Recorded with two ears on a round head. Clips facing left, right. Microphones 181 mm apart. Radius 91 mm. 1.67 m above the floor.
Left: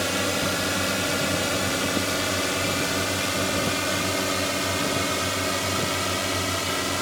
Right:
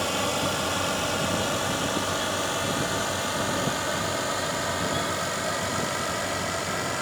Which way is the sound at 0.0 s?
25° left (ahead or behind).